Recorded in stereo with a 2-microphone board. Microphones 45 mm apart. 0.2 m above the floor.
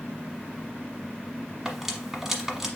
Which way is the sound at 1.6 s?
10° right (ahead or behind).